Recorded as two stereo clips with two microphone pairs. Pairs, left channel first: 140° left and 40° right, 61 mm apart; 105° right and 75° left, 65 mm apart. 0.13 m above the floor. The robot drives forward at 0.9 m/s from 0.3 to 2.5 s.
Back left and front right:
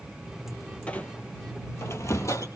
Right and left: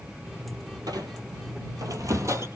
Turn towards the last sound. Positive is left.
turn(degrees=115)